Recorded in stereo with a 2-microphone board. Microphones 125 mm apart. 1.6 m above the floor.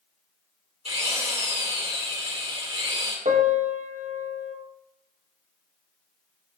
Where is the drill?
60° right (ahead or behind), 3.5 m.